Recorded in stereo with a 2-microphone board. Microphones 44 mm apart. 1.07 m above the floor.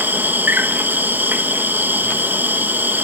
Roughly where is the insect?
Right.